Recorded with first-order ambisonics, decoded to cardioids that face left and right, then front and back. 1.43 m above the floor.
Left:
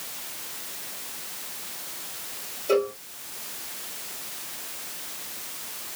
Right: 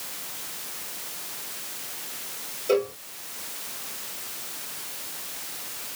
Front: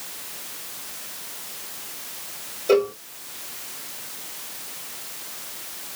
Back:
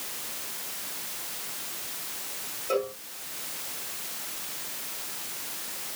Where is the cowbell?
5° right, 0.9 m.